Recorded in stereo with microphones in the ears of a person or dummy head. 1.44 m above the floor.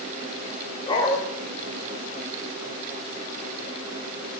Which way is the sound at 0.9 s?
25° left (ahead or behind).